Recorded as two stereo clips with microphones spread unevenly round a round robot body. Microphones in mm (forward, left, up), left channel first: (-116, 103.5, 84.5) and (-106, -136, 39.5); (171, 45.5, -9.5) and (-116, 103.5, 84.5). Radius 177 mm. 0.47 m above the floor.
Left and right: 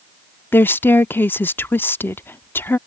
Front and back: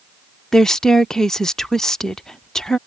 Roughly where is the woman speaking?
Ahead.